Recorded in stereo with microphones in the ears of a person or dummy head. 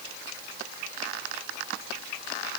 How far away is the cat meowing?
No cat meowing in this recording.